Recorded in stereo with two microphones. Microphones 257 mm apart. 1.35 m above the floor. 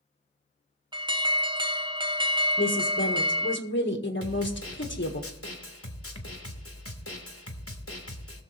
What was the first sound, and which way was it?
An alarm, 15° right (ahead or behind).